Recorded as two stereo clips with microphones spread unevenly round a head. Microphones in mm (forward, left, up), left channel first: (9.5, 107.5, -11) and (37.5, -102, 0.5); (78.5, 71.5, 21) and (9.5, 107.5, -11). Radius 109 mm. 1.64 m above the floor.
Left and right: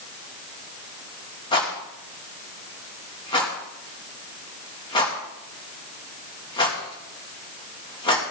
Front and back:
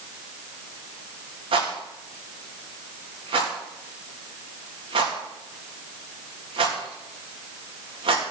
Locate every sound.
1.5 s a rattle: 170° left, 2.5 m